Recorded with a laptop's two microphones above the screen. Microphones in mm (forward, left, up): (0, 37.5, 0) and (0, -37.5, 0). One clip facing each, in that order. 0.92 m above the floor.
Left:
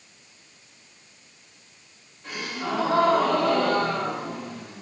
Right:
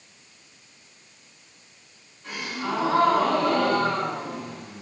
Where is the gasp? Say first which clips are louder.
Even; 40° left (ahead or behind), 2.0 m.